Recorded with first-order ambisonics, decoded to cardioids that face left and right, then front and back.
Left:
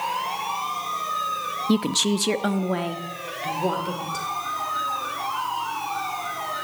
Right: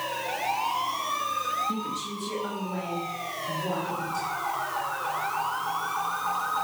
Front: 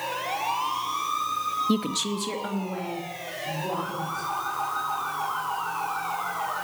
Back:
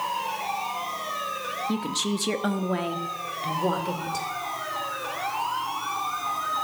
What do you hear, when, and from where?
1.7 s a woman speaking: 65° left, 0.7 m; by 4.3 s 145° left, 3 m